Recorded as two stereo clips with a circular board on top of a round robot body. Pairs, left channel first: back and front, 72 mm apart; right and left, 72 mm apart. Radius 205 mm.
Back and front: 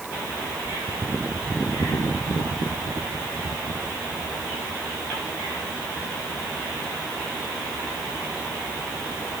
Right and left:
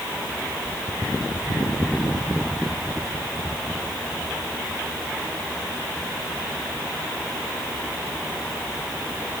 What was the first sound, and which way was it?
Only background noise.